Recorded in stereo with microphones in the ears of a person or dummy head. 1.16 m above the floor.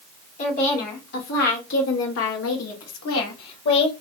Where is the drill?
No drill in this recording.